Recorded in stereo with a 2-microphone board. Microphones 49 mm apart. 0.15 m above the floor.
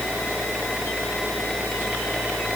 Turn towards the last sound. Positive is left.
No sound to turn to.